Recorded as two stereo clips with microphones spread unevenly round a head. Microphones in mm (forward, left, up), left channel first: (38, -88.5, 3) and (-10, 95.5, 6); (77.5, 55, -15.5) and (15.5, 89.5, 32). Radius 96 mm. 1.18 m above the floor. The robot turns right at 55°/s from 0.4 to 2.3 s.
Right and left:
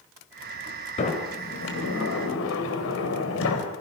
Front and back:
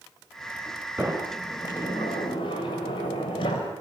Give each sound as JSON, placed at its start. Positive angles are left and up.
{"t": 1.0, "sound": "a sliding door", "azimuth_deg": -135, "distance_m": 4.0}